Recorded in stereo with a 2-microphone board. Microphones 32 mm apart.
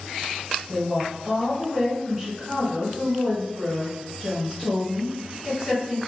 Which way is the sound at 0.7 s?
10° right (ahead or behind).